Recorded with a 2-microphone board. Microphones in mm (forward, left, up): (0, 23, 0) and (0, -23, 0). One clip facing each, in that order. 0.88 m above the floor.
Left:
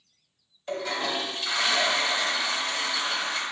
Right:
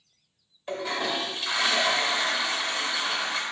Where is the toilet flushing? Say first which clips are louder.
Even; 10° right (ahead or behind), 0.8 m.